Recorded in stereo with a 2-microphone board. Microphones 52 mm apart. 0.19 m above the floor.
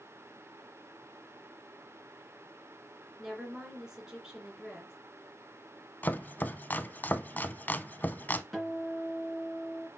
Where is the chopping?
35° left (ahead or behind), 0.5 m.